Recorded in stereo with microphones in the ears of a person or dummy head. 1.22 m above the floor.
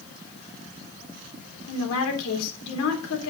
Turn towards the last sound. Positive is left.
turn(degrees=75)  # may be behind; listen again after turning